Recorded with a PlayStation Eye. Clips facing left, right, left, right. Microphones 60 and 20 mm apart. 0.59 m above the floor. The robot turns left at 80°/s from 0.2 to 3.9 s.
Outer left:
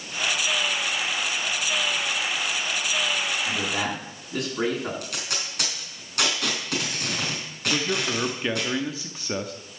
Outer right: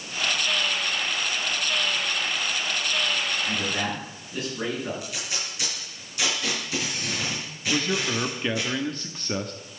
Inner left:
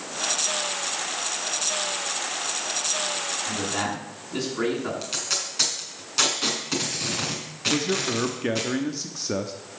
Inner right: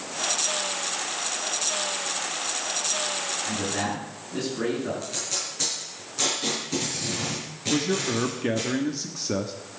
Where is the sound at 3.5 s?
30° left (ahead or behind), 7.5 m; by 4.9 s 65° left (ahead or behind), 7.5 m.